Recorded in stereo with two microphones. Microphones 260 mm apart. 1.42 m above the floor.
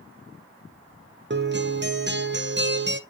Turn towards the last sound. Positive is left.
turn(degrees=-40)  # may be behind; listen again after turning